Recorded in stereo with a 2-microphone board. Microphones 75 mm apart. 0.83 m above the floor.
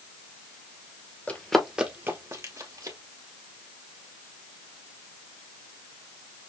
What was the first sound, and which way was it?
Running footsteps, 20° left (ahead or behind).